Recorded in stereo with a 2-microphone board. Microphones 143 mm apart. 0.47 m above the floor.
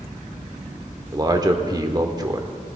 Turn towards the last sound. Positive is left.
turn(degrees=-30)  # may be behind; listen again after turning